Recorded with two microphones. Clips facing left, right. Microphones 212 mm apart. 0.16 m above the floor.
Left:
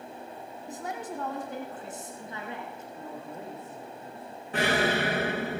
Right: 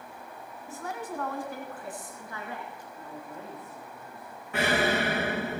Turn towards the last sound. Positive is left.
turn(degrees=35)  # may be behind; listen again after turning